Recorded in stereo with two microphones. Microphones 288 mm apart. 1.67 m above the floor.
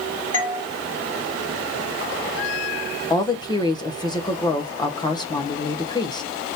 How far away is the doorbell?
About 1.4 m.